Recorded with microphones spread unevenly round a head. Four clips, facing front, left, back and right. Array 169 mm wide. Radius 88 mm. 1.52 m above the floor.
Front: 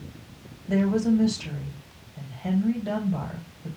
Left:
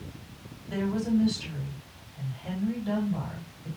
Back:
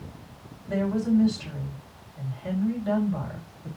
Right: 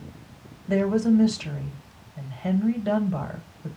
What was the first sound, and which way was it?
A woman speaking, 75° right.